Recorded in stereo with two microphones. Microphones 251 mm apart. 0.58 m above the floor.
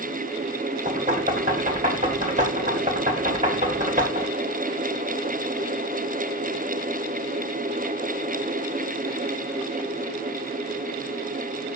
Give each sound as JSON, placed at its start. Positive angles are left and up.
{"t": 0.8, "sound": "knocking", "side_deg": -30, "distance_m": 1.9}